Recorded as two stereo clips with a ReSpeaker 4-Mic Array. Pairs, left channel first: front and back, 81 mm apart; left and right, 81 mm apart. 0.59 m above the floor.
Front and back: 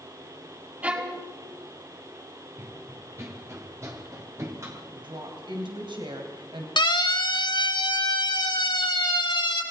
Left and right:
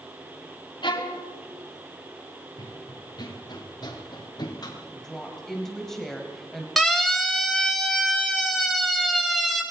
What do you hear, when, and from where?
0.8 s a violin: 110° left, 5 m
2.6 s running footsteps: 125° left, 3.5 m; by 4.8 s 130° left, 5.5 m
4.9 s a woman speaking: 175° left, 3.5 m
6.8 s a siren: straight ahead, 4.5 m